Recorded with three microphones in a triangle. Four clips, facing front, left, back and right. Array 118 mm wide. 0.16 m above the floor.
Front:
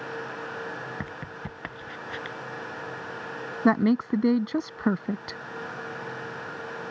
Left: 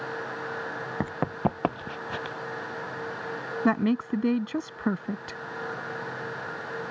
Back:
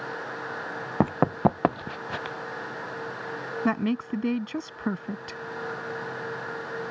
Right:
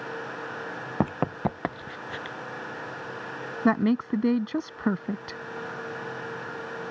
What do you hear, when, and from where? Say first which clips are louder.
1.0 s running footsteps: right 2 dB, back 15 dB; 155° right; by 2.4 s 150° left
3.6 s a woman speaking: right 2 dB, front 5 dB; 15° right